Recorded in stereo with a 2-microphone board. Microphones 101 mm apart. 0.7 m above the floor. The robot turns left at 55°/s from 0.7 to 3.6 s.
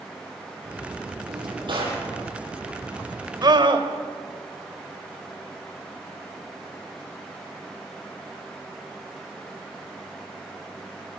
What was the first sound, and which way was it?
A drawer, 100° right.